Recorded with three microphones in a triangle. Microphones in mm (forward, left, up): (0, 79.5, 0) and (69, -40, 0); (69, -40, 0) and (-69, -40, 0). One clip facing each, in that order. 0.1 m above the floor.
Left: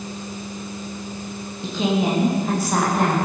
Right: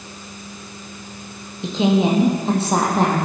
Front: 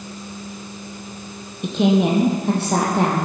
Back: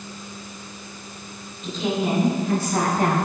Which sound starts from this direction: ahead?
A woman speaking, at 1.6 s.